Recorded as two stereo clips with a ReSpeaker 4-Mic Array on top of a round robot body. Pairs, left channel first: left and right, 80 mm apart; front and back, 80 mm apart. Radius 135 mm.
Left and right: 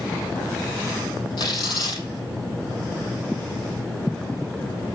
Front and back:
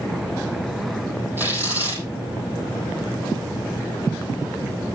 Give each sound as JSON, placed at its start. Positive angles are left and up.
{"t": 1.4, "sound": "tearing paper", "azimuth_deg": 115, "distance_m": 5.5}